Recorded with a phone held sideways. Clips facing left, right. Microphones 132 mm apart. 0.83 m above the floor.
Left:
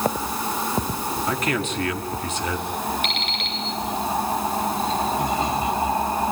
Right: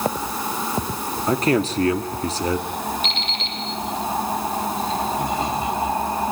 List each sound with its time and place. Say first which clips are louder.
1.3 s a man speaking: right 9 dB; 35° right (ahead or behind), 2 m
3.0 s an alarm clock: even; 60° left (ahead or behind), 7.5 m